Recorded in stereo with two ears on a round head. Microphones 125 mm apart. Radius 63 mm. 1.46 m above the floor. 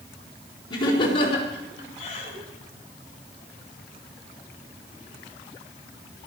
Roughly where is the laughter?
Left.